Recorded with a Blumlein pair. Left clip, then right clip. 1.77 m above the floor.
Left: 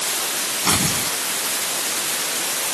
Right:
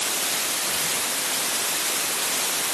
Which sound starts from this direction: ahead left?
Tearing paper, at 0.6 s.